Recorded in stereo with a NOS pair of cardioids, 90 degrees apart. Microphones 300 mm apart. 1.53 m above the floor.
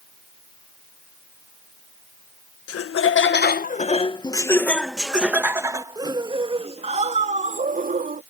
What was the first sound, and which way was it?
Laughter, 50° left.